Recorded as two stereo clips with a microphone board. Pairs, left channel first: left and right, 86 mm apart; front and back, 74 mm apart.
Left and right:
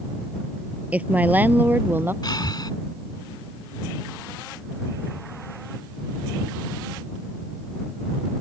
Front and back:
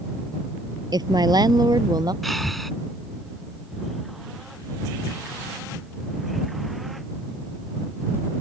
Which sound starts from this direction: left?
Breathing, at 2.2 s.